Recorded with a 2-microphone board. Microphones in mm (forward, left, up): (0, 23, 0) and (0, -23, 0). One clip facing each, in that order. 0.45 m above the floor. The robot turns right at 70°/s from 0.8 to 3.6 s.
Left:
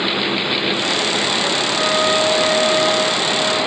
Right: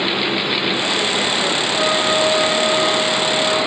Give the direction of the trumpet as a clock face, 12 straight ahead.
11 o'clock.